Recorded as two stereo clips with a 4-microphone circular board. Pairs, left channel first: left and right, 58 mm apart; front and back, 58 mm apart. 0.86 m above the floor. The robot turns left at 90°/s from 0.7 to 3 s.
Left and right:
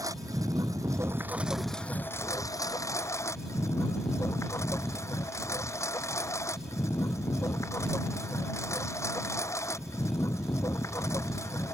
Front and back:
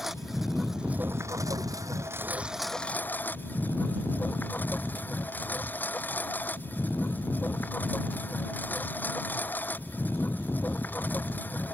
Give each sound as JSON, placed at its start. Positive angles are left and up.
{"t": 0.0, "sound": "a lawn mower", "azimuth_deg": -95}